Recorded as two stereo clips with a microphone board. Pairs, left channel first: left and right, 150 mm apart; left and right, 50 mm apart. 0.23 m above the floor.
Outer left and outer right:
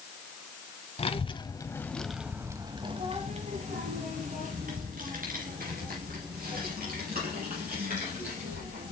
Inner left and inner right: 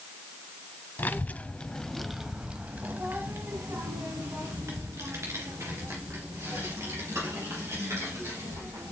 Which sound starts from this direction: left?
A child speaking, at 1.0 s.